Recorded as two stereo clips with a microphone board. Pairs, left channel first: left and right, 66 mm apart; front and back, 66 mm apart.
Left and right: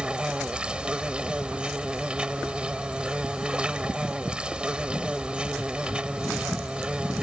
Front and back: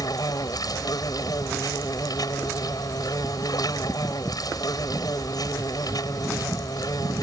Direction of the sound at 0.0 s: 15° right.